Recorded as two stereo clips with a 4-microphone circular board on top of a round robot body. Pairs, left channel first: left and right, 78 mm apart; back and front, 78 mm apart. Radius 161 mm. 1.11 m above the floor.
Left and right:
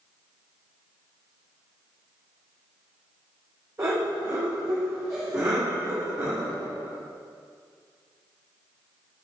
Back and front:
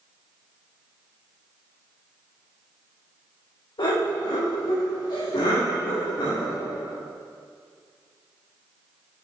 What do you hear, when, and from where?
3.8 s laughter: 145° right, 3 m